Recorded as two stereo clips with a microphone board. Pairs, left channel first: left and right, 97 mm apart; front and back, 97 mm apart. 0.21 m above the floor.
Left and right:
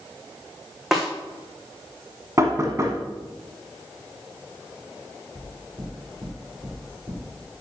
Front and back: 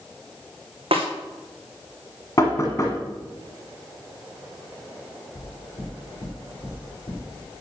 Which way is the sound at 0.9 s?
175° right.